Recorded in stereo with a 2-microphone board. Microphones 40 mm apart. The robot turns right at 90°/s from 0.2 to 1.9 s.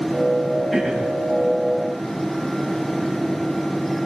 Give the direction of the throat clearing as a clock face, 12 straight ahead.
6 o'clock.